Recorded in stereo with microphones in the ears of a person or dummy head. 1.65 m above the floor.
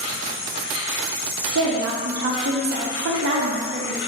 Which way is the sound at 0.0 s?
65° left (ahead or behind).